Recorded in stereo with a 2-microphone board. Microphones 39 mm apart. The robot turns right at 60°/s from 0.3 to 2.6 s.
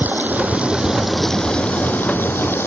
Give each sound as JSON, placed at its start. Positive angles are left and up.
{"t": 0.0, "sound": "running water", "azimuth_deg": -55}